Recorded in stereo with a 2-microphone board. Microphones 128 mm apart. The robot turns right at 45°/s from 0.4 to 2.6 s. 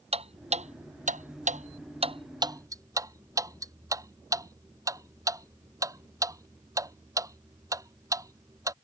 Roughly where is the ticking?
Right.